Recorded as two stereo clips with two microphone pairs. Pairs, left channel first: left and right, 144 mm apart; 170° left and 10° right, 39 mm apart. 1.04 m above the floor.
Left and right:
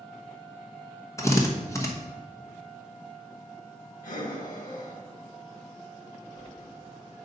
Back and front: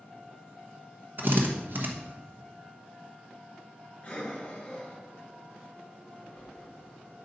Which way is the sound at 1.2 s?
20° left.